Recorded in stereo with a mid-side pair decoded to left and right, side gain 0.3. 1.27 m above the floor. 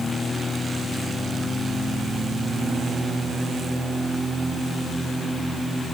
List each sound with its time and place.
Only background noise.